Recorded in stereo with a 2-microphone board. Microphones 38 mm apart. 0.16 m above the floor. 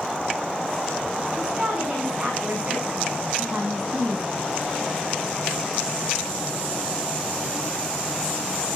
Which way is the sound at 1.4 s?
35° right (ahead or behind).